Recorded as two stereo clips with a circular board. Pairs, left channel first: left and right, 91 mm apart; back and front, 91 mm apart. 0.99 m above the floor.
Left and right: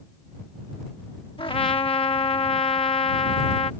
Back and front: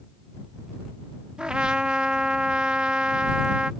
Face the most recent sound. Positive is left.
turn(degrees=80)